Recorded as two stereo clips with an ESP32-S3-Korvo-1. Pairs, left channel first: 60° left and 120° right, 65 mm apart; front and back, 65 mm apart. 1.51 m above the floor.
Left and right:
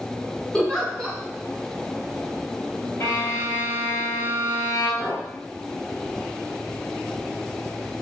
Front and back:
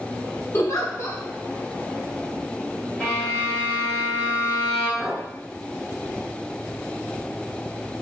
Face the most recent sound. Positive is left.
turn(degrees=60)